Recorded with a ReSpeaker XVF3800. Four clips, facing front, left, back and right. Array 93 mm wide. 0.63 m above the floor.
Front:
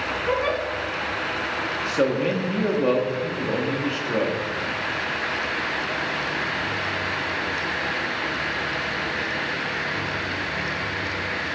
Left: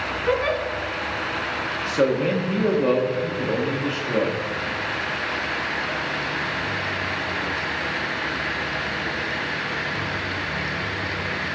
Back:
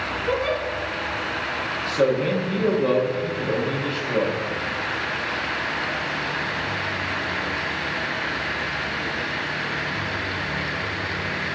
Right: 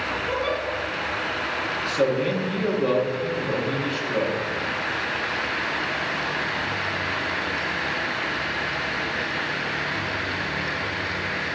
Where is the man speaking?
45° left, 1.2 m.